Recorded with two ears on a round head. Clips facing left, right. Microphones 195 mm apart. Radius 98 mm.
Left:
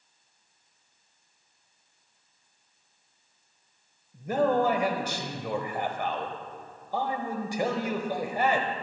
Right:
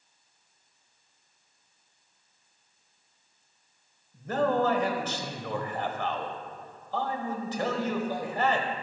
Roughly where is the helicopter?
No helicopter in this recording.